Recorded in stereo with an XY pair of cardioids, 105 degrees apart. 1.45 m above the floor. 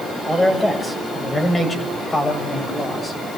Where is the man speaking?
15° left, 7 m; by 3.2 s 35° left, 7 m.